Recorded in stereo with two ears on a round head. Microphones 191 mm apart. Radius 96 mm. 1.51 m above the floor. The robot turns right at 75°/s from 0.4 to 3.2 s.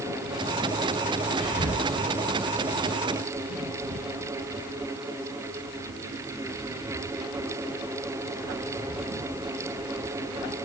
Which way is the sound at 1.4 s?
40° left (ahead or behind).